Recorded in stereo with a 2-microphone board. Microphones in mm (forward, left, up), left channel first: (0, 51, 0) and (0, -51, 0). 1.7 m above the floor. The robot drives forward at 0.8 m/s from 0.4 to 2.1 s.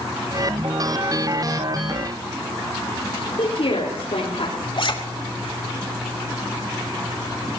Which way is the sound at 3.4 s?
80° left.